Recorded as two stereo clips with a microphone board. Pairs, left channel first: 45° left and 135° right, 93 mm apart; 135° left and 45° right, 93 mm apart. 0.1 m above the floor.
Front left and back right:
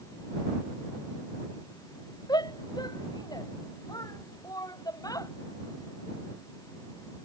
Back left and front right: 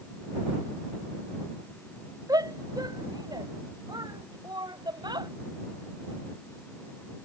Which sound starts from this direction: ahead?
A shout, at 2.3 s.